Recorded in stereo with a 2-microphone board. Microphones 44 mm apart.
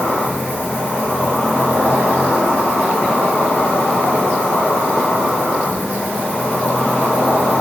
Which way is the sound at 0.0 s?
50° left (ahead or behind).